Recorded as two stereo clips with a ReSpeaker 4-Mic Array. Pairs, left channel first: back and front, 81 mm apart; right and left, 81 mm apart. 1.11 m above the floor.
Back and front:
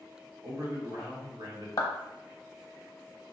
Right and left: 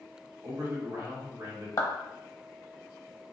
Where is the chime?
I don't hear a chime.